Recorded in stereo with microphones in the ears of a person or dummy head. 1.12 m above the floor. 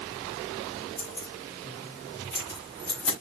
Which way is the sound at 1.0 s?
10° left (ahead or behind).